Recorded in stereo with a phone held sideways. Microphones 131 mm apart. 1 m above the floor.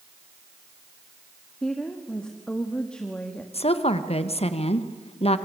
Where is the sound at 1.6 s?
5° left (ahead or behind), 1.4 m.